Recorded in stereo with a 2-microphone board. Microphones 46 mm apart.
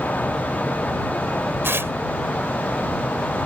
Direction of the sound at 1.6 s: 60° right (ahead or behind).